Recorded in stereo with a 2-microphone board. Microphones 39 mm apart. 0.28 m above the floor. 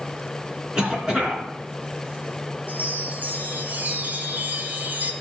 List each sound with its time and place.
0.8 s a cough: 20° right (ahead or behind), 3.5 m
2.7 s a chime: 45° right (ahead or behind), 1.3 m